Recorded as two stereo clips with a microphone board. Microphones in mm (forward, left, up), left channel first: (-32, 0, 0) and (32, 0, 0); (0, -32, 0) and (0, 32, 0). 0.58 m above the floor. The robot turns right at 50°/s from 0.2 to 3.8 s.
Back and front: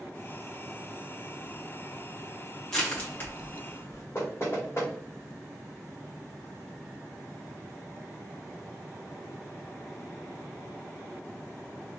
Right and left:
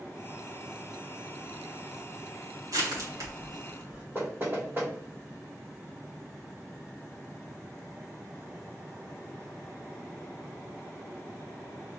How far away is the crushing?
About 1.8 m.